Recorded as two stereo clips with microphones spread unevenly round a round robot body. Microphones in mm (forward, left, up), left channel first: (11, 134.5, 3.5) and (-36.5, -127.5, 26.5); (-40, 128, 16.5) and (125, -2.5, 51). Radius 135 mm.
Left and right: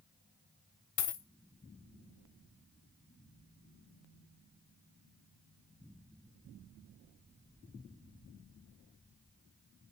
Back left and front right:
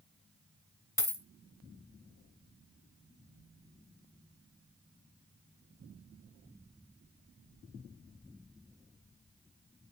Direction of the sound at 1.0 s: 60° left.